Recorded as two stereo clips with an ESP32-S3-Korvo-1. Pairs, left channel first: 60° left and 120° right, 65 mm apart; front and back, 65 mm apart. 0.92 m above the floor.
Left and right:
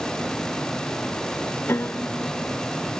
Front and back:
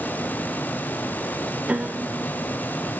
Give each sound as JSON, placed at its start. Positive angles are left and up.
{"t": 1.7, "sound": "a piano", "azimuth_deg": 115, "distance_m": 0.7}